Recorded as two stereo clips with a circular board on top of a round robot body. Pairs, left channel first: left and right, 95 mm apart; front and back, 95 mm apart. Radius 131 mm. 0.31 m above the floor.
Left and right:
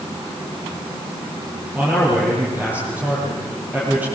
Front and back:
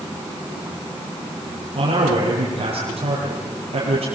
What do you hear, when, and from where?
1.7 s a man speaking: 165° right, 9.5 m